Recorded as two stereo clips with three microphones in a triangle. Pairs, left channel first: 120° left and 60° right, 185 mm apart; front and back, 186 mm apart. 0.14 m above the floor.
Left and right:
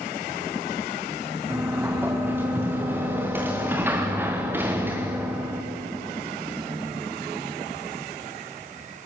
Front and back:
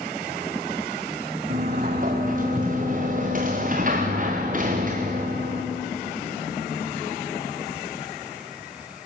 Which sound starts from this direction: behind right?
A sliding door, at 1.5 s.